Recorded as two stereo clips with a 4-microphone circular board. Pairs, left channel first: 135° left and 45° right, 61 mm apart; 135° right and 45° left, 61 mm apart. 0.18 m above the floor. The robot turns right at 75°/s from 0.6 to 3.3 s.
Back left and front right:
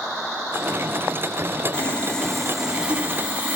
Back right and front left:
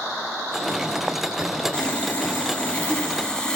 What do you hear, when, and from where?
1.7 s sawing: 170° left, 1.2 m; by 3.6 s 70° right, 1.2 m